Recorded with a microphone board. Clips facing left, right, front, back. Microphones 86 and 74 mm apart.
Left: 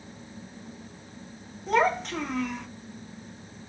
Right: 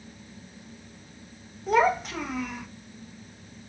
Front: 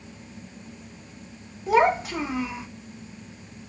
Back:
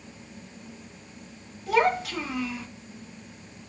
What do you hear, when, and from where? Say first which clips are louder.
1.7 s a child speaking: right 2 dB, front 3 dB; 10° right, 0.5 m